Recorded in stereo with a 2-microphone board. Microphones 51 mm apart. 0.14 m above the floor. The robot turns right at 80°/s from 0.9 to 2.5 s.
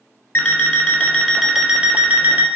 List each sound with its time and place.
0.3 s an alarm clock: 140° left, 0.7 m; by 2.5 s 95° right, 0.7 m